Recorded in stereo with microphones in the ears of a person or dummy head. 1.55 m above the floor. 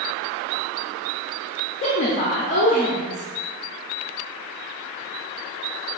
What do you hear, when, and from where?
1.8 s a woman speaking: 35° left (ahead or behind), 0.5 m